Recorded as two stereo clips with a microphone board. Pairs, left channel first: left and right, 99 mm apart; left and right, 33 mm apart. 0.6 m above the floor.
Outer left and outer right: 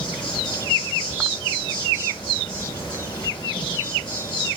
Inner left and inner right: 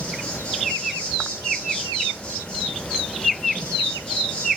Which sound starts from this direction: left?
An insect, at 0.0 s.